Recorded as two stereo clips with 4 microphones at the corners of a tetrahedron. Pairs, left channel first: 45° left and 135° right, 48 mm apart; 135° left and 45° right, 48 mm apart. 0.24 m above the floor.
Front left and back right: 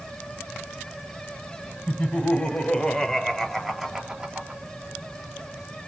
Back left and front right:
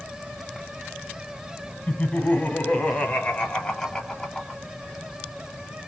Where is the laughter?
85° left, 1.4 m; by 4.6 s 140° right, 1.0 m.